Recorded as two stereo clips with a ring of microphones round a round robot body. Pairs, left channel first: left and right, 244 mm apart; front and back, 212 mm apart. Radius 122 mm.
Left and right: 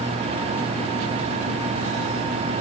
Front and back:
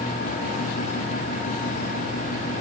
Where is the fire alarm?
I don't hear a fire alarm.